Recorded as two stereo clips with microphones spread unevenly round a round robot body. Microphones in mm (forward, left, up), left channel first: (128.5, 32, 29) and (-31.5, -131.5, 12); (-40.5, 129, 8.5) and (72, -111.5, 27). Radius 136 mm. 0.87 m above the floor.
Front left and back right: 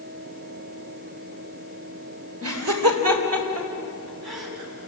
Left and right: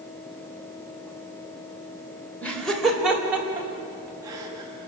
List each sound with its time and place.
2.4 s laughter: 160° right, 4 m; by 4.9 s 140° right, 7 m